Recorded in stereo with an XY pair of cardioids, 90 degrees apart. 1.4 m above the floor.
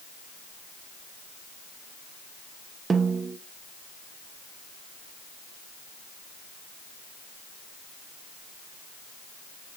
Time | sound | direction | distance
2.9 | a snare drum | 40° right | 1.3 m